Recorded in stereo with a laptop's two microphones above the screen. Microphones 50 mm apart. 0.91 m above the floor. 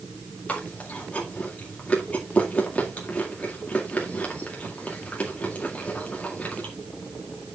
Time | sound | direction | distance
0.5 | chewing | 25° left (ahead or behind) | 2.0 m